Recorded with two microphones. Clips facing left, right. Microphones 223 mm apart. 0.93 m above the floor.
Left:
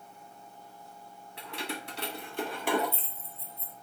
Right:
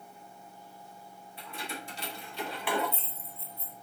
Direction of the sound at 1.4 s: 80° left.